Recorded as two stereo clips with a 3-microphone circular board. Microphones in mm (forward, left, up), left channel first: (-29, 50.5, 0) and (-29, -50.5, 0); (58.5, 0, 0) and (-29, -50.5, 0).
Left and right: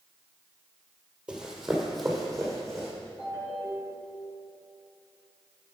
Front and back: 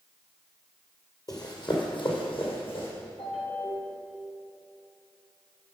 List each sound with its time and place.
1.3 s running footsteps: 10° right, 1.7 m; by 2.9 s 10° left, 3.5 m
3.2 s a ringtone: 35° left, 3.5 m